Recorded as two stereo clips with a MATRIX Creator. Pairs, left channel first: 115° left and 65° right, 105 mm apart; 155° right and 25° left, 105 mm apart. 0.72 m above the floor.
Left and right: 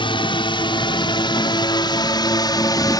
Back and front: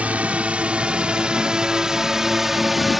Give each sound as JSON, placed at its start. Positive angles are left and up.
{"t": 0.0, "sound": "a drone", "azimuth_deg": 100}